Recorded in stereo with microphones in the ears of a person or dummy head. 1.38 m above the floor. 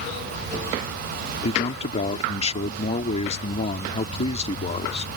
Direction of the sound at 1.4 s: 35° left (ahead or behind).